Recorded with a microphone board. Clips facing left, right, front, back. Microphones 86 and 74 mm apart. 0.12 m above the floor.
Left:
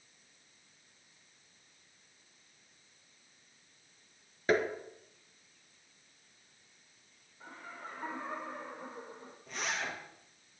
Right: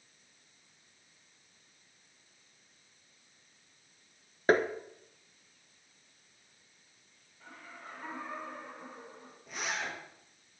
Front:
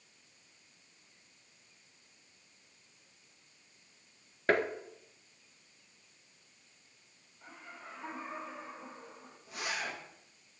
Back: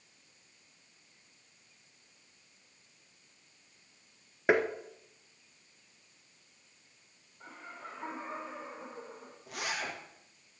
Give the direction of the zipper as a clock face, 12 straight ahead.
6 o'clock.